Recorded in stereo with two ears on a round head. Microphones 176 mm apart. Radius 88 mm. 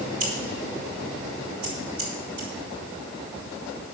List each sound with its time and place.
0.2 s scissors: 75° right (ahead or behind), 4.5 m